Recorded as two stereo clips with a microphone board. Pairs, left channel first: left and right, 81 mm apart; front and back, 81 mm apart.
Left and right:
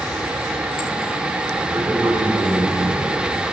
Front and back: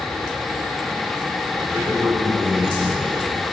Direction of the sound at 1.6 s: 110° right.